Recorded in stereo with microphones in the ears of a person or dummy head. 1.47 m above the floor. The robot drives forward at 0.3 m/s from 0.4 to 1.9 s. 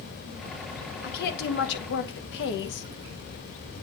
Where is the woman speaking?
55° left (ahead or behind), 1.3 m; by 2.9 s 60° left (ahead or behind), 1.2 m.